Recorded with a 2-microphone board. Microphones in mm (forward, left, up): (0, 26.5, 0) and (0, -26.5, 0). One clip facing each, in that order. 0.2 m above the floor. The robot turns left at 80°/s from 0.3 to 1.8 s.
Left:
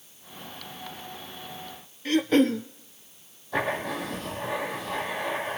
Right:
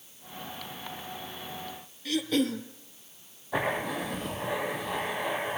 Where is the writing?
10° right (ahead or behind), 7 m.